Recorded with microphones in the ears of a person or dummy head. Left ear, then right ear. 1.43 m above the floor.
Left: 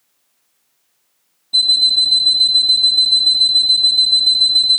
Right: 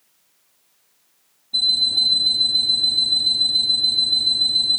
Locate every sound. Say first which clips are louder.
1.5 s an alarm clock: left 5 dB; 65° left (ahead or behind), 1.3 m